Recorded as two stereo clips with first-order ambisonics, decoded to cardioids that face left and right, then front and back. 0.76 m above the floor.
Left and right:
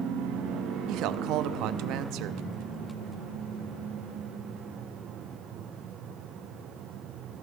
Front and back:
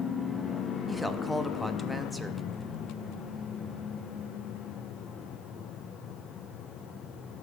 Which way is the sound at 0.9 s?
85° right.